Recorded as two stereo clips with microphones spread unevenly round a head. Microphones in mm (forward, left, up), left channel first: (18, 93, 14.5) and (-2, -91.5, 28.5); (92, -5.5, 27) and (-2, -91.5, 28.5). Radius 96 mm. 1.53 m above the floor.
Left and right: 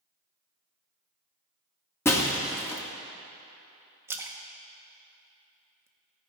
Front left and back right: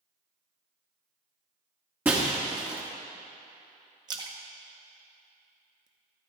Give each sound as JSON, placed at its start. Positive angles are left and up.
{"t": 2.0, "sound": "breaking glass", "azimuth_deg": 160, "distance_m": 1.1}
{"t": 4.1, "sound": "a splash", "azimuth_deg": -150, "distance_m": 0.7}